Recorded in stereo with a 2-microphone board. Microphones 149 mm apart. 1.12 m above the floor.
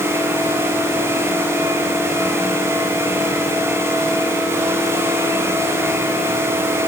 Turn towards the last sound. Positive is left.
No sound to turn to.